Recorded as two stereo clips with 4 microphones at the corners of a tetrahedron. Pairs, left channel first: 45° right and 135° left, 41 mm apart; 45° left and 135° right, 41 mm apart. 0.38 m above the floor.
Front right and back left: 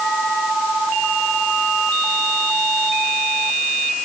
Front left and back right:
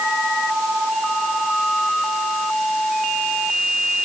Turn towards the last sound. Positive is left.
No sound to turn to.